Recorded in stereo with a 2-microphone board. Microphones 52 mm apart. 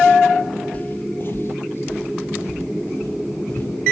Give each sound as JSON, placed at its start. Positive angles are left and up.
{"t": 0.7, "sound": "footsteps", "side_deg": 30, "distance_m": 1.0}